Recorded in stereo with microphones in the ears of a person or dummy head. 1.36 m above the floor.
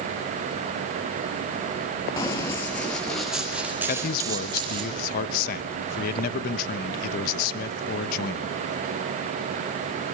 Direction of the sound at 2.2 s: 20° left (ahead or behind).